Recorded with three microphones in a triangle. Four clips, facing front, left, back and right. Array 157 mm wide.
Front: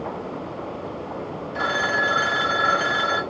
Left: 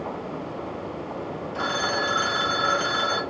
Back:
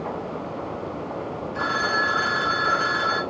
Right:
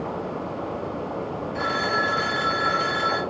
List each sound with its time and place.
1.6 s a phone ringing: 10° left, 2.5 m